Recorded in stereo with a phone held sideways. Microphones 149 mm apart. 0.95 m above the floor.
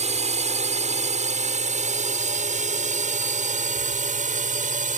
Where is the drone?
50° right (ahead or behind); by 5.0 s 55° right (ahead or behind).